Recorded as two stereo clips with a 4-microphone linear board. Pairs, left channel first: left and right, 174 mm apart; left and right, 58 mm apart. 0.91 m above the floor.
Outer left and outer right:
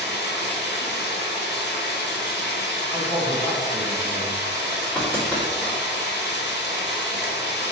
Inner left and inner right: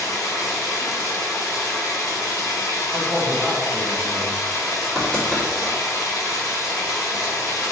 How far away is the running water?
About 0.9 m.